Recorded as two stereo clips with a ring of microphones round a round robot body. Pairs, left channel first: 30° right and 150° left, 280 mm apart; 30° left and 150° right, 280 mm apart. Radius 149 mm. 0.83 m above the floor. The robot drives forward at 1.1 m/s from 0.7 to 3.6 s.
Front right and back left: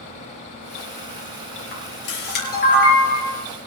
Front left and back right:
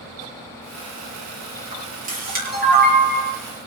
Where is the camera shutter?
85° right, 6.5 m; by 3.3 s 100° right, 6.5 m.